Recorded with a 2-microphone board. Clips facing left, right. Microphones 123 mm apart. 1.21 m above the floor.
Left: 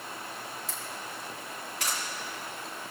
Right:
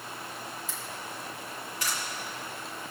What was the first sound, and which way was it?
A camera shutter, 75° left (ahead or behind).